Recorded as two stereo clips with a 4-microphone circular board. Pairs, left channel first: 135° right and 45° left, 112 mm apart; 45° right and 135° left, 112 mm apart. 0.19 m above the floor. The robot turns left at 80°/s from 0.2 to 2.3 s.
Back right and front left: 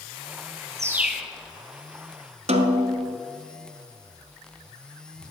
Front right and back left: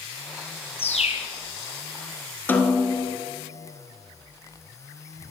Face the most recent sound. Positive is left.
turn(degrees=30)